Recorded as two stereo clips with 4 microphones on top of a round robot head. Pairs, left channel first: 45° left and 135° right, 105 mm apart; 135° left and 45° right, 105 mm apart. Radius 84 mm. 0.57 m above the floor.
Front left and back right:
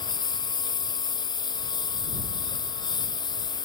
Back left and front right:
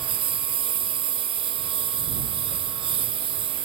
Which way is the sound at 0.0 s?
5° right.